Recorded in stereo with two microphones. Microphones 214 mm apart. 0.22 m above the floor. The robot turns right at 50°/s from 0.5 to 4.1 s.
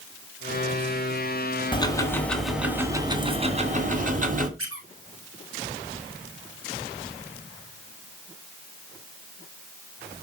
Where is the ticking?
145° left, 1.9 m; by 4.5 s 100° right, 1.9 m.